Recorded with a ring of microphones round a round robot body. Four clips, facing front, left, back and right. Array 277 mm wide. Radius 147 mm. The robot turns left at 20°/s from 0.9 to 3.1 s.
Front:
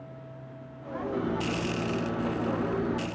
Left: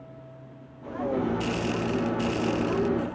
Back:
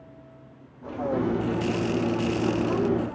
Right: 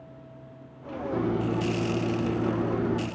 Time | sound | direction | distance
1.1 | a microwave | 110° right | 9.5 m